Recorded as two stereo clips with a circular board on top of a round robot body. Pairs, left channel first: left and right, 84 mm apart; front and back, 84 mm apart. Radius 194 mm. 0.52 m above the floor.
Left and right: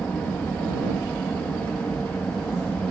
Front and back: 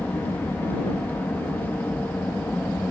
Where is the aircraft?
40° left.